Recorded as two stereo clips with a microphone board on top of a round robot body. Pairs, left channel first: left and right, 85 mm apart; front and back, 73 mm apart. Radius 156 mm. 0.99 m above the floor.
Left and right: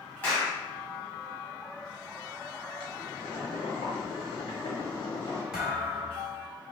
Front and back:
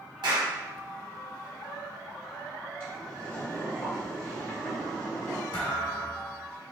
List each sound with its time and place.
0.2 s a clap: 165° left, 1.9 m
2.8 s boiling: 60° left, 0.9 m
5.5 s a thud: 5° right, 1.2 m